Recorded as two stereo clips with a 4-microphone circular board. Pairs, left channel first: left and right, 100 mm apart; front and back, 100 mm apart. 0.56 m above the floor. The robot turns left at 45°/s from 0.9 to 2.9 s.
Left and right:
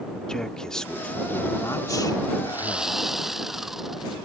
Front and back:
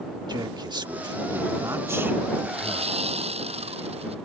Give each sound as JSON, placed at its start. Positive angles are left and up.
{"t": 0.3, "sound": "a man speaking", "azimuth_deg": 170}
{"t": 2.5, "sound": "sawing", "azimuth_deg": -160}